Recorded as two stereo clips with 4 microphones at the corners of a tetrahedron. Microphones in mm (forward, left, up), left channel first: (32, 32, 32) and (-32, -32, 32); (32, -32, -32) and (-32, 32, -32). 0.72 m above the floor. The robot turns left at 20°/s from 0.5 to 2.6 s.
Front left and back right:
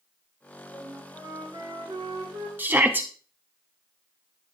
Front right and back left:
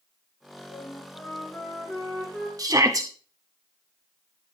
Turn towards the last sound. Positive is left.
turn(degrees=165)